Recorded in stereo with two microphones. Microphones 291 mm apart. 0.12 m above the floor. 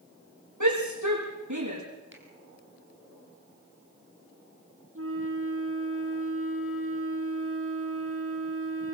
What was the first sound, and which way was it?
A shout, 80° right.